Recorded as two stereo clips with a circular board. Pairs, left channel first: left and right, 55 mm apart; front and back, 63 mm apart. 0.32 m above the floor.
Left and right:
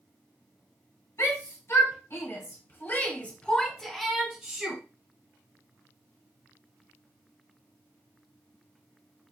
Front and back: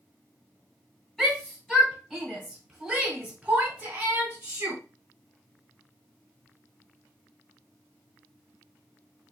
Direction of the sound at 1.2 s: 80° left.